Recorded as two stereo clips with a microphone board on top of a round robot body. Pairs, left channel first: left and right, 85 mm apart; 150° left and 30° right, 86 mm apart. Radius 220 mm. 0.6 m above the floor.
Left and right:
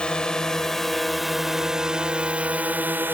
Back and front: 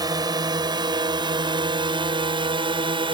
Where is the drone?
10° left; by 3.1 s 25° right.